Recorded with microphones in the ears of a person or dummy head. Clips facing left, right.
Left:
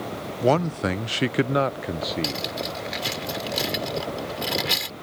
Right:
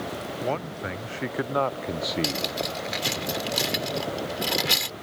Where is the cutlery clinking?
Centre (ahead or behind).